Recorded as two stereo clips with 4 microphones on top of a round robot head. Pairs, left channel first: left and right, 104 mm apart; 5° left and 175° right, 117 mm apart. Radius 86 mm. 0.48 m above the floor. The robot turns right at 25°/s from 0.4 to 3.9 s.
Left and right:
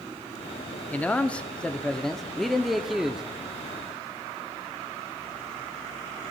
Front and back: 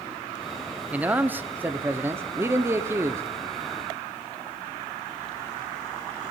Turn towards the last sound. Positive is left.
turn(degrees=-150)